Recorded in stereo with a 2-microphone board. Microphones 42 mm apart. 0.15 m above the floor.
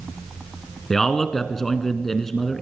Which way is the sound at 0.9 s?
10° left (ahead or behind).